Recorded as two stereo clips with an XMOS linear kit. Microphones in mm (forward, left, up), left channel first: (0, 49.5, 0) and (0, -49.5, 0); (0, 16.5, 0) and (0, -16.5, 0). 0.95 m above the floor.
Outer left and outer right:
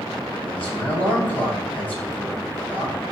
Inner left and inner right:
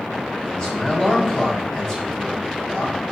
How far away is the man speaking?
About 6 m.